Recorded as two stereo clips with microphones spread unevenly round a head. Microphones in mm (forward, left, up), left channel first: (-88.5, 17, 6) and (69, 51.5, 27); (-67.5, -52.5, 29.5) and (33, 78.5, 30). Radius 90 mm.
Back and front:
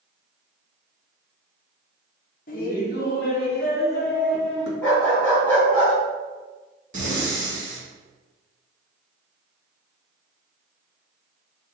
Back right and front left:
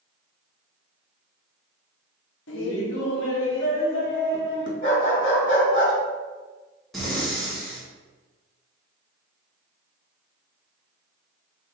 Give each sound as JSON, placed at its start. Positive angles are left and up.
{"t": 2.5, "sound": "laughter", "azimuth_deg": -120, "distance_m": 1.4}
{"t": 4.8, "sound": "a dog barking", "azimuth_deg": -85, "distance_m": 3.0}
{"t": 6.9, "sound": "breathing", "azimuth_deg": -40, "distance_m": 2.5}